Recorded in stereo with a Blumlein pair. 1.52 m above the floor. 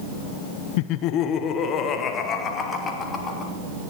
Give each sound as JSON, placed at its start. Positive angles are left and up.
{"t": 0.8, "sound": "laughter", "azimuth_deg": 45, "distance_m": 0.6}